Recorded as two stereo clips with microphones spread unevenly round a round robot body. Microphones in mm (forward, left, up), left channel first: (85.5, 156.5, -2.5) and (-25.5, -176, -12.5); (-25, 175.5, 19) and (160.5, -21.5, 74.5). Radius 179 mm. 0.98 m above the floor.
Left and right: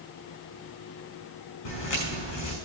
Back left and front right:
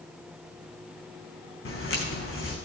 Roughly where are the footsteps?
Left.